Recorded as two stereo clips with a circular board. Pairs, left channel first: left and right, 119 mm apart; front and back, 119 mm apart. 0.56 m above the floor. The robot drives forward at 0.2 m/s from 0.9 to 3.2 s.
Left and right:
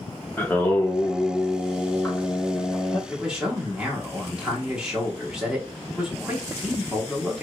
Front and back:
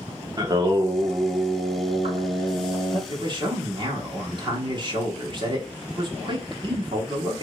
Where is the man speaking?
170° right, 0.9 m.